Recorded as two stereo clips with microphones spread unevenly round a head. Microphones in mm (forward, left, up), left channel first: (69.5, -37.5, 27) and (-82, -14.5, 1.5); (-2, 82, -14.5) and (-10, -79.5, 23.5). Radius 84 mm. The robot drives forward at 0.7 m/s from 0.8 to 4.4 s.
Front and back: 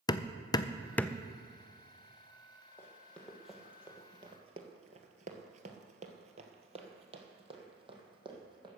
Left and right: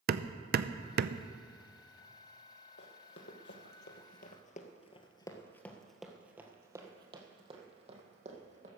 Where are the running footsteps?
60° left, 2.5 m; by 8.7 s 125° right, 3 m.